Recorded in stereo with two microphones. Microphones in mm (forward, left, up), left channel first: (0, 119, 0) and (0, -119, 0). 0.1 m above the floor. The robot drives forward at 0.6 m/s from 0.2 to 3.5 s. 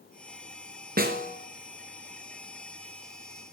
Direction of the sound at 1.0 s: 40° right (ahead or behind).